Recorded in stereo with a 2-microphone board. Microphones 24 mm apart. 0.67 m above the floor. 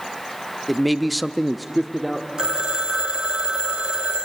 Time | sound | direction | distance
0.7 | a man speaking | centre (ahead or behind) | 1.0 m
2.4 | a phone ringing | 35° right (ahead or behind) | 1.8 m